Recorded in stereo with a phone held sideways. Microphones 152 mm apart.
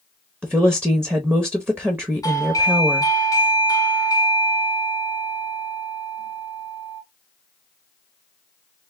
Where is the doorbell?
20° left (ahead or behind), 0.9 m.